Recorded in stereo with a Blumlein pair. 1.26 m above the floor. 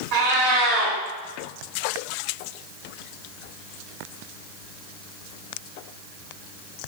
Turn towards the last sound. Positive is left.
turn(degrees=-50)